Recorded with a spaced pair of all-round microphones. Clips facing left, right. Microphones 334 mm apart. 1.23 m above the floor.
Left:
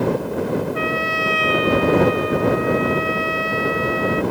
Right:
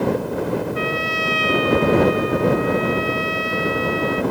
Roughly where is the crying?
No crying in this recording.